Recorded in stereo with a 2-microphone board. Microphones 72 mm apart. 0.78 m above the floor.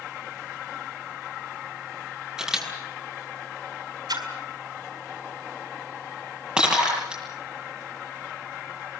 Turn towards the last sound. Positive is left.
turn(degrees=-10)  # may be behind; listen again after turning